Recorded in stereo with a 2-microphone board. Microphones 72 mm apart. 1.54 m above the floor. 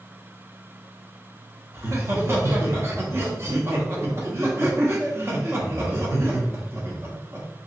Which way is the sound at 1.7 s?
35° right (ahead or behind).